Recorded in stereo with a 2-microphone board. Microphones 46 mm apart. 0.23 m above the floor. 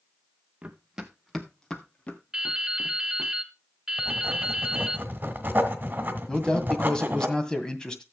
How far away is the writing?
About 1.8 m.